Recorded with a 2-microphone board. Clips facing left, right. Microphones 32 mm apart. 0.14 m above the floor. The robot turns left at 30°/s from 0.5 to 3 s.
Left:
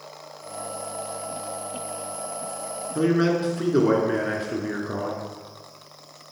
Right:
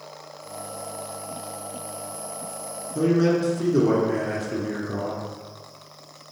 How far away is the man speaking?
About 1.6 m.